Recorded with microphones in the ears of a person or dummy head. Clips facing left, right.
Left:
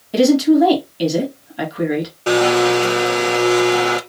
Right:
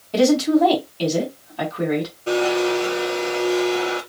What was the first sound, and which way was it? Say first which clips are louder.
A woman speaking: left 4 dB; 15° left (ahead or behind).